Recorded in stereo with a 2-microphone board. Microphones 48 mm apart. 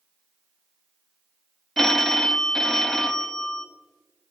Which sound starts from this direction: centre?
A phone ringing, at 1.8 s.